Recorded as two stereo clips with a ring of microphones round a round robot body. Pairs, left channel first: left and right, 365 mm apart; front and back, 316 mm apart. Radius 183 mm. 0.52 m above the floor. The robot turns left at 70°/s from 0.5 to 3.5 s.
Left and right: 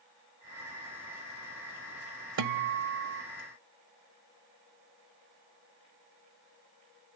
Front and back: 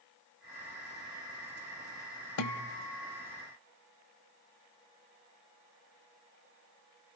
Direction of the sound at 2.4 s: 45° right.